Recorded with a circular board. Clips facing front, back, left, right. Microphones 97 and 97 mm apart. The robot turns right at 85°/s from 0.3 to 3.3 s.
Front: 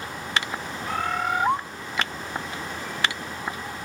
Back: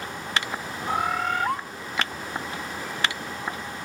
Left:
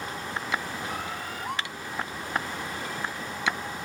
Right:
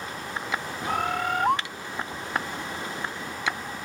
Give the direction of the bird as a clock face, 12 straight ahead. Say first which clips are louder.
Back 1 dB, right 8 dB; 4 o'clock.